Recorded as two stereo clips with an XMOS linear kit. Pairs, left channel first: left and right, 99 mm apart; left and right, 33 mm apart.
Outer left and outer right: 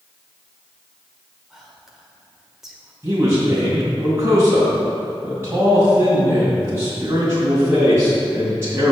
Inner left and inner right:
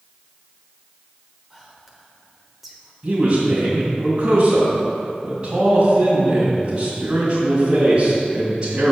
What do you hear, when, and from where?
1.5 s whispering: 5° right (ahead or behind), 1.1 m
3.0 s a man speaking: 25° right (ahead or behind), 2 m